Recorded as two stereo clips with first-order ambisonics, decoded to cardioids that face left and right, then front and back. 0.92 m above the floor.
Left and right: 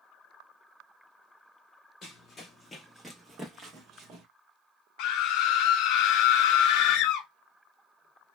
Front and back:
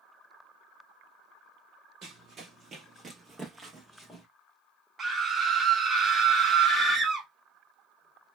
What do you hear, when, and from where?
2.0 s running footsteps: 140° left, 1.2 m; by 4.2 s 90° right, 1.1 m
5.0 s a scream: 110° left, 0.7 m